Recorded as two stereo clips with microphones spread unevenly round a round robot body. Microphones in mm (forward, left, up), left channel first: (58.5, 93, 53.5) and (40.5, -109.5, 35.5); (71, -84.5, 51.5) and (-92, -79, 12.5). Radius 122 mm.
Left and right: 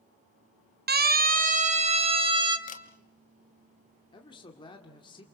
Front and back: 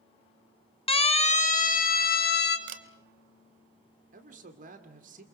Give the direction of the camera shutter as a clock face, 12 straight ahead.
7 o'clock.